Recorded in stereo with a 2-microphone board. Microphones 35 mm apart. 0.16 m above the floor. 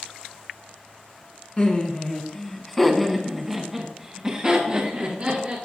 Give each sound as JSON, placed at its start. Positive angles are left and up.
{"t": 1.6, "sound": "laughter", "side_deg": 35, "distance_m": 1.6}